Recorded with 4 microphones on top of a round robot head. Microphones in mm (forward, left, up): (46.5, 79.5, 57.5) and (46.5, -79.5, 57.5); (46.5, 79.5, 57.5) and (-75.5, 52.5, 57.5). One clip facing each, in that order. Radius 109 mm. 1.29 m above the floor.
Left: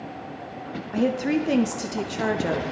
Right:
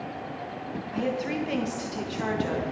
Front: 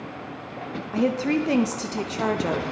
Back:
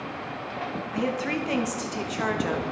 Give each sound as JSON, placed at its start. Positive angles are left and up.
{"t": 0.9, "sound": "a woman speaking", "azimuth_deg": 65, "distance_m": 0.7}